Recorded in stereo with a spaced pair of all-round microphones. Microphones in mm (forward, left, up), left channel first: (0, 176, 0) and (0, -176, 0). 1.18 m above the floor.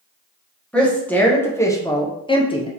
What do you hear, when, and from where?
0.7 s a woman speaking: 5° left (ahead or behind), 1.3 m; by 2.7 s 15° left (ahead or behind), 0.5 m